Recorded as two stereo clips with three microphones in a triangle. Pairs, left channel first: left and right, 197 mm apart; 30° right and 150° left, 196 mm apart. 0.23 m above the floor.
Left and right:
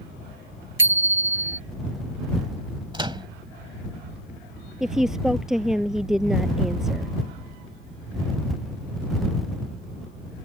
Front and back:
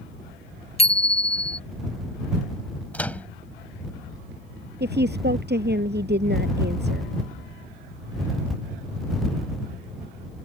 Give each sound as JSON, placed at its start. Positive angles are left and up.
{"t": 0.8, "sound": "a bicycle bell", "azimuth_deg": -90}
{"t": 2.9, "sound": "a microwave", "azimuth_deg": -100}
{"t": 4.8, "sound": "a woman speaking", "azimuth_deg": -175}